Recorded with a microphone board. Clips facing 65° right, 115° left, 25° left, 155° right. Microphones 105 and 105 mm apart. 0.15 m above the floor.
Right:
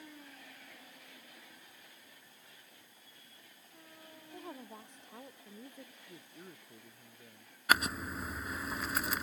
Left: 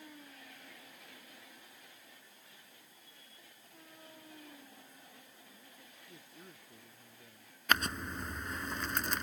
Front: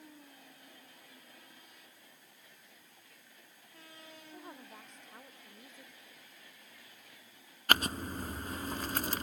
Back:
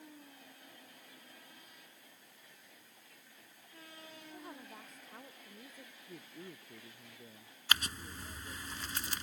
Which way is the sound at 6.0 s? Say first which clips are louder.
Right 3 dB, back 9 dB; 145° right.